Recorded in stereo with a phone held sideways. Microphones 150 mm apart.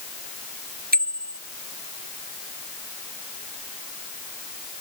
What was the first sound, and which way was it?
A bicycle bell, 85° right.